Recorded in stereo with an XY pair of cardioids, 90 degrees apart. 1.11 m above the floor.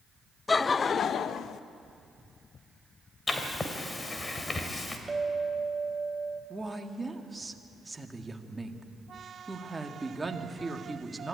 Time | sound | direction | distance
0.5 | laughter | 30° left | 0.6 m
3.3 | writing | 30° left | 2.5 m
5.1 | a clink | 20° right | 3 m
6.5 | a woman speaking | 15° right | 1.9 m